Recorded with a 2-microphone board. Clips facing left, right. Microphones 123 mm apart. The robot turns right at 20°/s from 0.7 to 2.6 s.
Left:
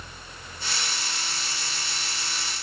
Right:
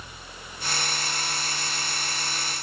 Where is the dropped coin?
No dropped coin in this recording.